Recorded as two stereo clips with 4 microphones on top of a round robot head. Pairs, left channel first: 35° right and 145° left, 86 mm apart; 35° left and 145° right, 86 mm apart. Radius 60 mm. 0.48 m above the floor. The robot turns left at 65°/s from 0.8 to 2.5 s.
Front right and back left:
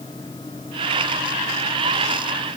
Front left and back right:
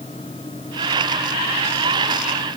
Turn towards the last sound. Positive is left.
No sound to turn to.